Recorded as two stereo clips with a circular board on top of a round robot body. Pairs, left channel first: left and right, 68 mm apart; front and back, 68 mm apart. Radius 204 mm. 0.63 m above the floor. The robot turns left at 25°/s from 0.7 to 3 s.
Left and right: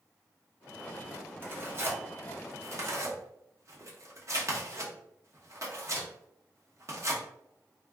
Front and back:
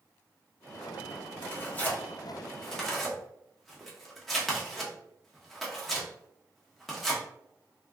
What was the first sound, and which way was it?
Tearing paper, 45° right.